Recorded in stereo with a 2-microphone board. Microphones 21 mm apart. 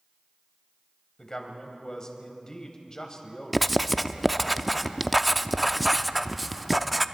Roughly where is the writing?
Centre.